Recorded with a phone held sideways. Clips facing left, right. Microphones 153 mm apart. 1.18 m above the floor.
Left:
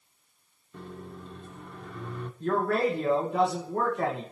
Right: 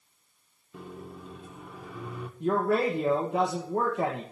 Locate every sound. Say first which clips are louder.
0.7 s a microwave: even; 5° right (ahead or behind), 0.7 m
2.4 s a man speaking: right 1 dB; 15° right (ahead or behind), 1.2 m